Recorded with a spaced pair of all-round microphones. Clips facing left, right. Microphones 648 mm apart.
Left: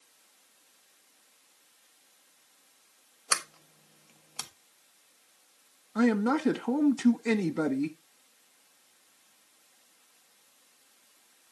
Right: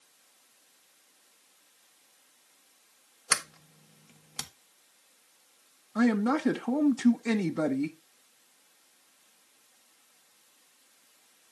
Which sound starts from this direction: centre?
A man speaking, at 6.0 s.